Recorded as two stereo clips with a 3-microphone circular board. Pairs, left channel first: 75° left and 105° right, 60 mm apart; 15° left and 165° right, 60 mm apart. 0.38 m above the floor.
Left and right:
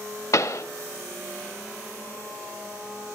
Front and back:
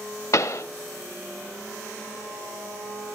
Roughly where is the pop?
Ahead left.